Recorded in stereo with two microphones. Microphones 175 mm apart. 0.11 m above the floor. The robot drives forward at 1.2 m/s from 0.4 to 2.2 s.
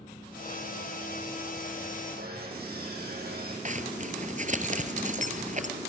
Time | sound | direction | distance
2.2 | sawing | 65° right (ahead or behind) | 5.5 m
3.6 | a zipper | 45° right (ahead or behind) | 1.6 m